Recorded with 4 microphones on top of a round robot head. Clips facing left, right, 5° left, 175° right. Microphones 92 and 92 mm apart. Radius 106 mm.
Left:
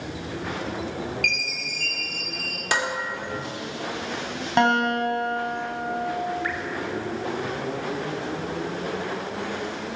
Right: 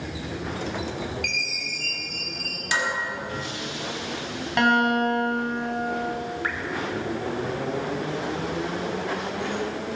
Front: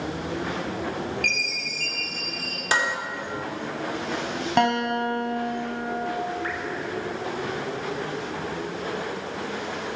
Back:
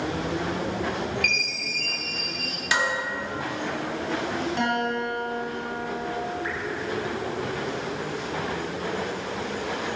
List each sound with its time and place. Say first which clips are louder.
1.2 s a chime: left 2 dB, even; 55° left, 4.5 m
2.7 s dishes clattering: left 1 dB, front 1 dB; 55° left, 2 m
4.6 s a guitar: even, front 6 dB; 30° left, 3.5 m
6.4 s dripping: even, front 1 dB; 45° right, 1.6 m